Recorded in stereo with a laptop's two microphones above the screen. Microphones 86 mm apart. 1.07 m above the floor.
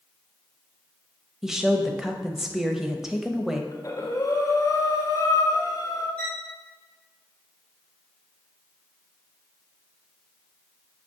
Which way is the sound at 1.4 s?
5° right (ahead or behind).